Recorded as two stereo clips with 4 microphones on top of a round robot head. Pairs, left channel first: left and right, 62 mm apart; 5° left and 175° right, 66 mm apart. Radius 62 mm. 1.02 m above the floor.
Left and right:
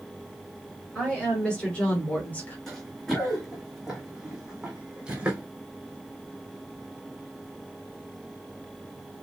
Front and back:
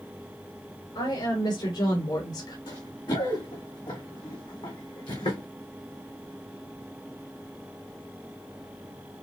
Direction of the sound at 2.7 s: 5° left.